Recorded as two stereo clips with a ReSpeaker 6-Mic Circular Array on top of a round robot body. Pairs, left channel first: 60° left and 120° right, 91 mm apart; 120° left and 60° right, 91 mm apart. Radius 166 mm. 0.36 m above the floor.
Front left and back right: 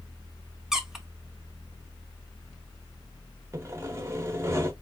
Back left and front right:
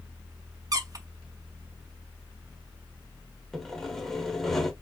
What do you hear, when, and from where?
0.7 s a squeak: 35° right, 1.1 m
3.5 s sawing: 155° right, 1.2 m